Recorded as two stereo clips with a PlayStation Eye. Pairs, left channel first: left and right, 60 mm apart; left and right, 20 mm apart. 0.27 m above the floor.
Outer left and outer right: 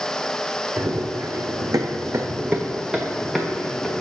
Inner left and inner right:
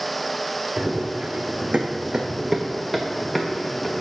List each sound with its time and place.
0.8 s running footsteps: 60° right (ahead or behind), 1.3 m; by 4.0 s 5° left (ahead or behind), 1.9 m